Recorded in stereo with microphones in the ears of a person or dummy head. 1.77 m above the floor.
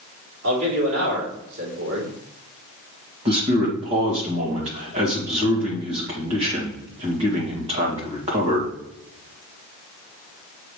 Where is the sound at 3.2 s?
30° right (ahead or behind), 1.7 m.